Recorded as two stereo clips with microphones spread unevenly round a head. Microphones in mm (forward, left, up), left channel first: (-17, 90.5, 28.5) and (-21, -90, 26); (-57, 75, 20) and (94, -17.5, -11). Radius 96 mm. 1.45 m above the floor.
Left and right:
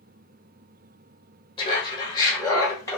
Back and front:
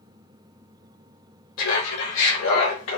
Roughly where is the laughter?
Behind left.